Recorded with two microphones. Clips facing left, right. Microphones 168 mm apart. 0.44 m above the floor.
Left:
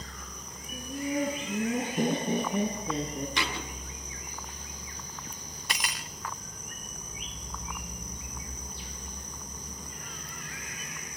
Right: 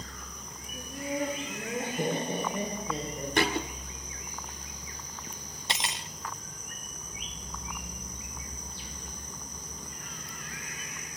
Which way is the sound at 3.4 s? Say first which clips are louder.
Right 7 dB; 50° right (ahead or behind).